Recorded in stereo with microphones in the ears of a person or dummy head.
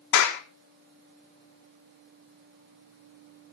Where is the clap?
75° left (ahead or behind), 2.5 m.